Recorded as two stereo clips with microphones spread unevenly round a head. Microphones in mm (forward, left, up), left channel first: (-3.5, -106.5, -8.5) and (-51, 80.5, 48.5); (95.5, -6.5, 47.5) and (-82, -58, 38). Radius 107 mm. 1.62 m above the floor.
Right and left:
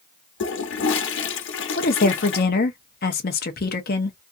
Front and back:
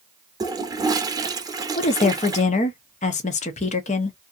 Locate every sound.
0.4 s a toilet flushing: 95° right, 0.8 m
1.8 s a woman speaking: 25° right, 0.6 m